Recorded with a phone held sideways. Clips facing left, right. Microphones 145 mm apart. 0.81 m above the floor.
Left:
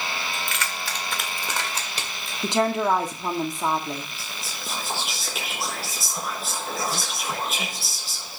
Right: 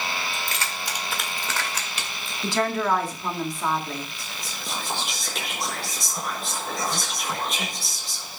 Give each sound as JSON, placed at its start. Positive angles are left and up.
{"t": 0.3, "sound": "keys jangling", "side_deg": -45, "distance_m": 1.8}
{"t": 2.4, "sound": "a woman speaking", "side_deg": 20, "distance_m": 1.9}
{"t": 4.2, "sound": "whispering", "side_deg": 5, "distance_m": 1.1}